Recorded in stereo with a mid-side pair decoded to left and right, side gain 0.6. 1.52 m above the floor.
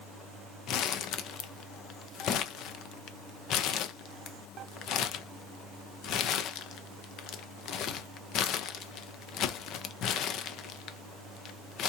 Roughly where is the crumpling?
Ahead left.